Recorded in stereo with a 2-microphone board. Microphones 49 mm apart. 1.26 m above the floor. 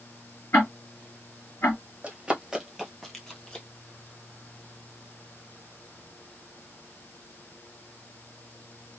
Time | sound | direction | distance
0.5 | ticking | 60° left (ahead or behind) | 2.5 m
2.0 | running footsteps | 25° right (ahead or behind) | 1.3 m